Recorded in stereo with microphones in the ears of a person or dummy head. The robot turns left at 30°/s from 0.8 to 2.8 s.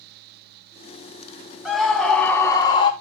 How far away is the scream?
About 2.5 m.